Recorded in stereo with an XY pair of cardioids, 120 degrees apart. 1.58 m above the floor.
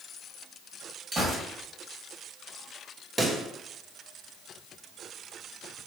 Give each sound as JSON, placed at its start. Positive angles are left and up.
{"t": 1.1, "sound": "a gunshot", "azimuth_deg": -25, "distance_m": 1.5}
{"t": 3.2, "sound": "a pop", "azimuth_deg": -20, "distance_m": 0.5}